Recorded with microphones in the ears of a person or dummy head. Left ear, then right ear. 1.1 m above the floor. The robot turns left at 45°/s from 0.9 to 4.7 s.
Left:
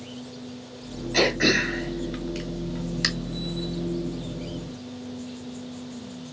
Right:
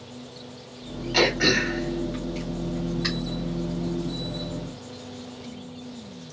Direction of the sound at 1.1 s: 15° right (ahead or behind).